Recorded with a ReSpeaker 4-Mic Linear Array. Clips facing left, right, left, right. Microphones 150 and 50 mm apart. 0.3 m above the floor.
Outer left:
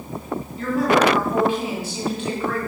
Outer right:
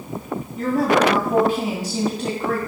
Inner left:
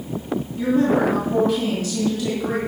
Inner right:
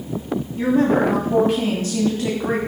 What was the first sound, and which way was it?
A woman speaking, 40° right (ahead or behind).